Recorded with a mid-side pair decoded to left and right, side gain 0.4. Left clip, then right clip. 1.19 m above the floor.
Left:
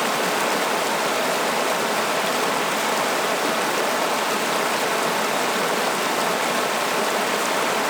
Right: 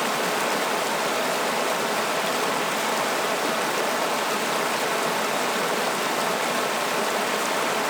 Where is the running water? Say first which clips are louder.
Left 3 dB; 20° left, 1.2 m.